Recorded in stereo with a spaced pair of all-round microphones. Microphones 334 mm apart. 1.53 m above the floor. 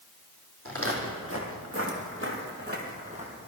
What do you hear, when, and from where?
0.7 s footsteps: 40° right (ahead or behind), 2.5 m; by 3.5 s 15° right (ahead or behind), 2.5 m